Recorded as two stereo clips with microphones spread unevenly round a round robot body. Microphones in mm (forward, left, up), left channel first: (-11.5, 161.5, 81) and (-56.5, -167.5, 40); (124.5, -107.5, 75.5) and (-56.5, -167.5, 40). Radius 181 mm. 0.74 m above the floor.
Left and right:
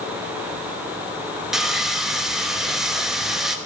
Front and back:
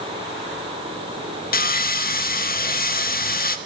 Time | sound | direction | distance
1.5 | sawing | 15° right | 0.8 m